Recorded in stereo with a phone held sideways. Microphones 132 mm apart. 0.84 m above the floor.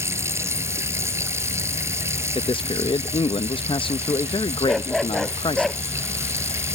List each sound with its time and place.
0.0 s running water: 20° right (ahead or behind)
2.4 s a man speaking: 40° left (ahead or behind)
4.7 s a dog barking: centre (ahead or behind)